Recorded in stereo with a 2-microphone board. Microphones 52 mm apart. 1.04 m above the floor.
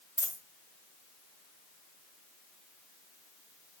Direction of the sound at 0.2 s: 60° left (ahead or behind).